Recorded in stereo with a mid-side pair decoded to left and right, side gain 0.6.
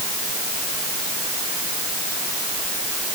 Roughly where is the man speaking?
No man speaking in this recording.